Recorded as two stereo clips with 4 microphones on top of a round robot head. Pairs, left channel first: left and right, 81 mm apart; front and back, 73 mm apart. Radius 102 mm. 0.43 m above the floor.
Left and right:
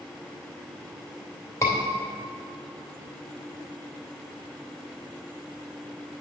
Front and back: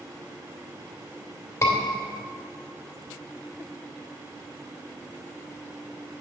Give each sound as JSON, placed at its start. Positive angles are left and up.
{"t": 1.6, "sound": "a scream", "azimuth_deg": 40, "distance_m": 2.5}